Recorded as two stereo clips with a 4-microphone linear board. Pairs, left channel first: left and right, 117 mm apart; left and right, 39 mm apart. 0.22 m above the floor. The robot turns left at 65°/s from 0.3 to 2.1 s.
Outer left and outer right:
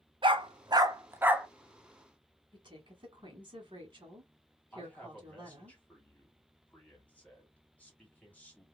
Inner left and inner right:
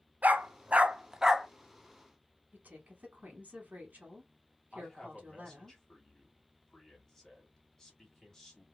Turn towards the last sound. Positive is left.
turn(degrees=10)  # may be behind; listen again after turning